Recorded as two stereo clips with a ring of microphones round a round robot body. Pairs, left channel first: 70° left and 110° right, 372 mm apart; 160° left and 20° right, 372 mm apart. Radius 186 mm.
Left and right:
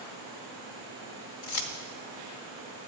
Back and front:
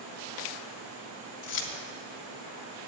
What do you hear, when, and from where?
1.4 s keys jangling: 95° left, 1.7 m